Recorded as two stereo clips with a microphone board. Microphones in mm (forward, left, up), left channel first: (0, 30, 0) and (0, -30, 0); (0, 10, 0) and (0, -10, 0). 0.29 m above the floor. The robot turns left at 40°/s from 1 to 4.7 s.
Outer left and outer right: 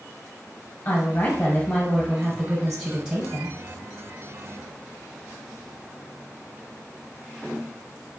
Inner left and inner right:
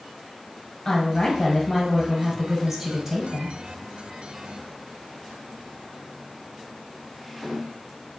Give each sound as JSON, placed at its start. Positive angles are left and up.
{"t": 0.8, "sound": "a woman speaking", "azimuth_deg": 70, "distance_m": 1.2}